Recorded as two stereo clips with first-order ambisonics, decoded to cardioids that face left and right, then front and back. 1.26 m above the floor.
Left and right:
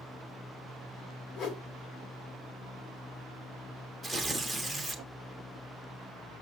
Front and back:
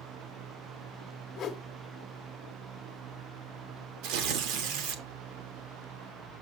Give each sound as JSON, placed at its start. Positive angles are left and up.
{"t": 1.4, "sound": "a whoosh", "azimuth_deg": 50, "distance_m": 1.1}
{"t": 4.0, "sound": "tearing paper", "azimuth_deg": 170, "distance_m": 1.4}